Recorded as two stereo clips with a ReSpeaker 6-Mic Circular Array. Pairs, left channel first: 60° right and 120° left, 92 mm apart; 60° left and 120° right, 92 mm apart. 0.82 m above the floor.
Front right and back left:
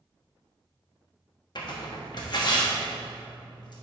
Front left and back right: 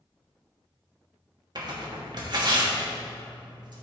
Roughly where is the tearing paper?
Right.